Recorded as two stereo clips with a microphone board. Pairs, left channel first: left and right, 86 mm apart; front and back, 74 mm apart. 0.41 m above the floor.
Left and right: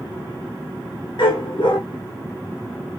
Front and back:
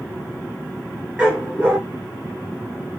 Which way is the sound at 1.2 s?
105° left.